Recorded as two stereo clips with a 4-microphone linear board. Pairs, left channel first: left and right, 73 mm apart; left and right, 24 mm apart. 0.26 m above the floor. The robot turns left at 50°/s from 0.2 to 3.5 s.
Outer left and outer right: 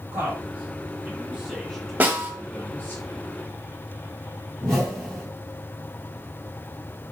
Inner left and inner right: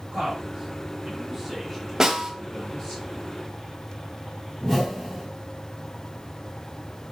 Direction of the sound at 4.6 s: 10° left (ahead or behind).